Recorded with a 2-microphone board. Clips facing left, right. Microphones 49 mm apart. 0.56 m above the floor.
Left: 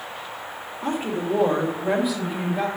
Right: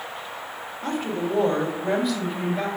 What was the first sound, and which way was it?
A woman speaking, 15° left (ahead or behind).